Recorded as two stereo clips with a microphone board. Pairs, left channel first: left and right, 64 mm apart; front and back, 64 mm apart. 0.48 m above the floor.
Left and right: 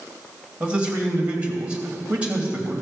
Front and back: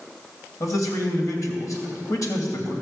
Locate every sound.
0.6 s a man speaking: 20° right, 2.5 m